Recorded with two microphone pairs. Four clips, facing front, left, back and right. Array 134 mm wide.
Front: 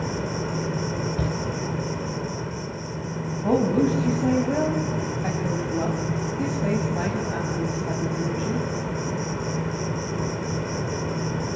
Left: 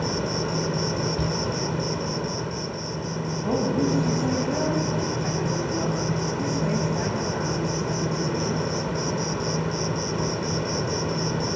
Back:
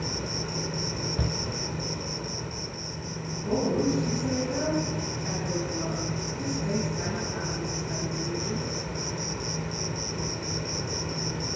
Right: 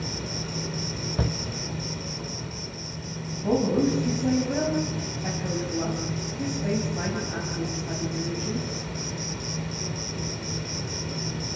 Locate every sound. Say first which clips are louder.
0.0 s an insect: left 8 dB, front 6 dB; 65° left, 1.1 m
1.2 s a shout: left 2 dB, front 2 dB; 75° right, 1.9 m
3.3 s a woman speaking: right 2 dB, front 5 dB; 5° right, 4.5 m